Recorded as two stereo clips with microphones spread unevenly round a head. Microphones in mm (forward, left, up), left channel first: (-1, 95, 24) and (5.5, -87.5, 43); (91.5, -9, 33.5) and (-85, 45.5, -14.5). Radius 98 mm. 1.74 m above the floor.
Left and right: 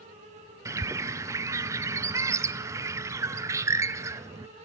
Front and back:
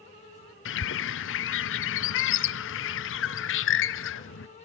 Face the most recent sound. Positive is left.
turn(degrees=-15)